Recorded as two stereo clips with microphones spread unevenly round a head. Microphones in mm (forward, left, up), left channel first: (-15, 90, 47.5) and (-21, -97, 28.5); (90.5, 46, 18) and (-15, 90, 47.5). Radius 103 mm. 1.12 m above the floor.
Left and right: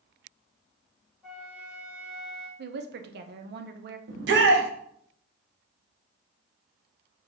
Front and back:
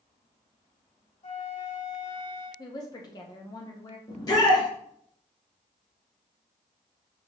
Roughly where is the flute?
Ahead.